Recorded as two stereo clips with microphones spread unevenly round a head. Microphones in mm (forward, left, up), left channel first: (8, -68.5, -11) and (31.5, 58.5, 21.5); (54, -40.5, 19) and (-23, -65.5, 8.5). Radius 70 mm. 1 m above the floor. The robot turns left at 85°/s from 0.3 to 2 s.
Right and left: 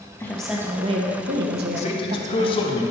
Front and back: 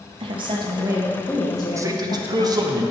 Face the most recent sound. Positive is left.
turn(degrees=-140)